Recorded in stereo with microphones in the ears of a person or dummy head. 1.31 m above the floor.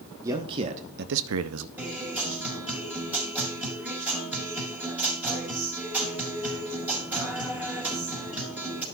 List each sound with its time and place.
0.2 s a man speaking: 20° right (ahead or behind), 1.3 m; by 1.7 s 65° right (ahead or behind), 0.9 m
1.8 s a guitar: 10° right (ahead or behind), 5.5 m